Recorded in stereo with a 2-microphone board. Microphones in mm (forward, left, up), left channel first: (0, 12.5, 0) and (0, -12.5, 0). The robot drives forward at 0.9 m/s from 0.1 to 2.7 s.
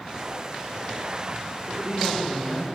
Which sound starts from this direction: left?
A woman speaking, at 1.7 s.